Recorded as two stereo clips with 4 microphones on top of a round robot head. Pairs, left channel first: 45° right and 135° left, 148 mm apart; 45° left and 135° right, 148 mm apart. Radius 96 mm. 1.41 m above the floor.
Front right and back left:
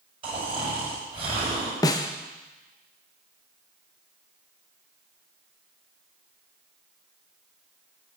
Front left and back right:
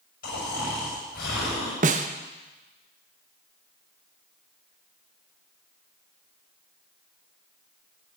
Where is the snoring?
75° left, 7.5 m.